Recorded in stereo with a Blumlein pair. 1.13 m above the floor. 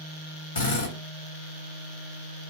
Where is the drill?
65° left, 2 m.